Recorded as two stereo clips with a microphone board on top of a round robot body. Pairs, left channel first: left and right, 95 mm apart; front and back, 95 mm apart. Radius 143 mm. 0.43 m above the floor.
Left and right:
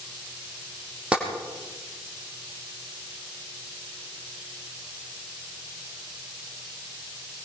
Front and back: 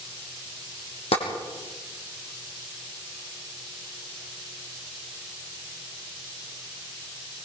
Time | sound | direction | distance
1.1 | tapping | 10° right | 5 m